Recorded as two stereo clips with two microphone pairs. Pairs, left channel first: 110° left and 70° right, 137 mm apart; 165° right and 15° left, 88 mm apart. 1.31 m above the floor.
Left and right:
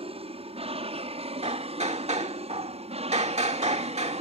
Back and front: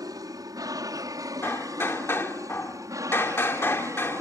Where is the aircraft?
25° right; by 4.2 s 35° right.